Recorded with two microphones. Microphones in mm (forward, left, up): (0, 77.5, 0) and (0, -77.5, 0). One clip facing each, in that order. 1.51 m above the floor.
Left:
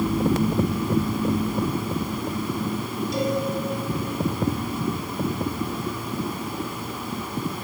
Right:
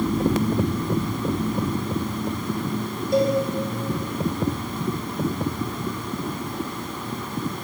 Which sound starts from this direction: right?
A cowbell, at 3.1 s.